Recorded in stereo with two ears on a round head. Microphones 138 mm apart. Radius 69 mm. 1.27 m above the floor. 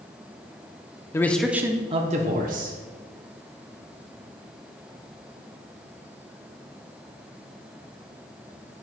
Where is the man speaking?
20° left (ahead or behind), 0.7 m; by 2.8 s 65° right (ahead or behind), 1.2 m.